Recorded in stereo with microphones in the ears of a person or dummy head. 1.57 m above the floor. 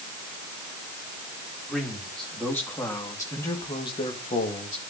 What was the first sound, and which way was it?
A man speaking, 5° left (ahead or behind).